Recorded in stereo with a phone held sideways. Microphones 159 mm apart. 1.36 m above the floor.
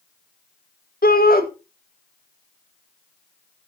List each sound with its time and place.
1.0 s a shout: 70° left (ahead or behind), 1.9 m